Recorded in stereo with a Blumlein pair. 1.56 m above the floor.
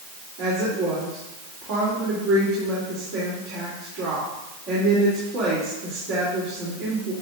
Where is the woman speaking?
40° right, 3.5 m.